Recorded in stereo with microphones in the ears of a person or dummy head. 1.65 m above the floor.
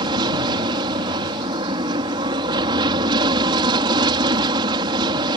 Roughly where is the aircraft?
Right.